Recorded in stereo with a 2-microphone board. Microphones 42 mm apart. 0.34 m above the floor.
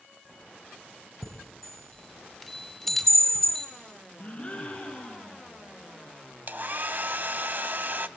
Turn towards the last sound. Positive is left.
turn(degrees=-50)  # may be behind; listen again after turning